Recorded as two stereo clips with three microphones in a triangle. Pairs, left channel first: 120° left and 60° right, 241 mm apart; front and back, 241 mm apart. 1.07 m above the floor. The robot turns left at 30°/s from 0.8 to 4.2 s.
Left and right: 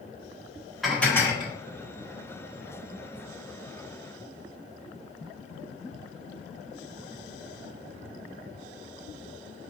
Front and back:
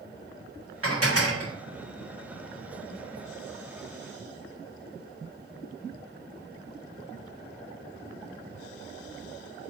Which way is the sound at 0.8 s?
150° right.